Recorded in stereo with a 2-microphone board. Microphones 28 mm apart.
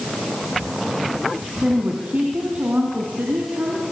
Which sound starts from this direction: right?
A woman speaking, at 1.6 s.